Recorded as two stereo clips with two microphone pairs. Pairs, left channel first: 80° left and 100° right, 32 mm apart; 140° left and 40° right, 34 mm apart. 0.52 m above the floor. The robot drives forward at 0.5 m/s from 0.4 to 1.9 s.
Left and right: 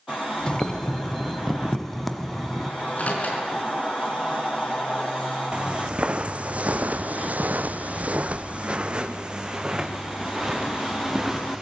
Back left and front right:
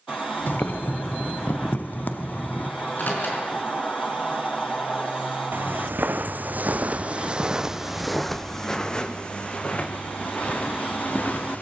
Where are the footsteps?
40° right, 1.4 m; by 11.6 s straight behind, 2.5 m.